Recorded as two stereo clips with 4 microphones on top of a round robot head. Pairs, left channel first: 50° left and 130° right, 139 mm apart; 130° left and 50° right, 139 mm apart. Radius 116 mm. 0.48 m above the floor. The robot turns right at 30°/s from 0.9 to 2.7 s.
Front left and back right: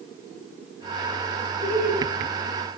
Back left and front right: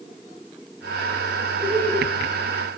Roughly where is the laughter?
Right.